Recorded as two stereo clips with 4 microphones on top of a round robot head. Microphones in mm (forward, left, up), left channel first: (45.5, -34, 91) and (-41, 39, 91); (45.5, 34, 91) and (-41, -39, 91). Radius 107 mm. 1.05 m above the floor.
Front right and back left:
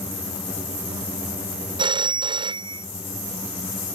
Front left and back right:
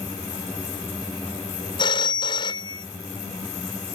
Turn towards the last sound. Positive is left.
turn(degrees=90)